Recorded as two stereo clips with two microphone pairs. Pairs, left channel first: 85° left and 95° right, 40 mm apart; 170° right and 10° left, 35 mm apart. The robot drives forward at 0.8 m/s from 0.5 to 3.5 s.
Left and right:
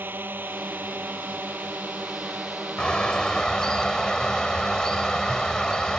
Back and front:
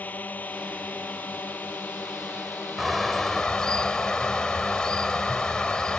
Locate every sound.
0.0 s a drone: 130° right; by 6.0 s 145° right
2.8 s a bird: 95° left; by 6.0 s 145° left